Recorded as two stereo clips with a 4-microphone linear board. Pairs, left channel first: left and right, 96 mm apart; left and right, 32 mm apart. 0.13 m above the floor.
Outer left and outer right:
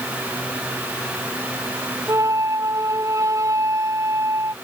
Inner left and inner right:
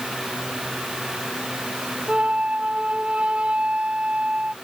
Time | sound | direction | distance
2.1 | a flute | 35° right (ahead or behind) | ?